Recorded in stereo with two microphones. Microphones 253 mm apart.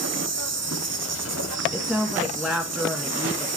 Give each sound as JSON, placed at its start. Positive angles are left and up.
{"t": 0.0, "sound": "an insect", "side_deg": -70, "distance_m": 0.9}
{"t": 1.7, "sound": "a woman speaking", "side_deg": 0, "distance_m": 1.3}